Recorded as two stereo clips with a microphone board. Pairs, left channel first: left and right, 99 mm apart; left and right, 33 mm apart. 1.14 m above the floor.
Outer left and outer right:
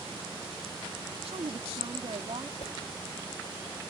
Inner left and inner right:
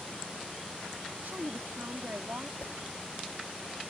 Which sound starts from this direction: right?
A woman speaking, at 1.2 s.